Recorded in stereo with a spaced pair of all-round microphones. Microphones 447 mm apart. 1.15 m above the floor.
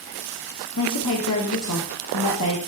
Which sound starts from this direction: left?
A woman speaking, at 0.8 s.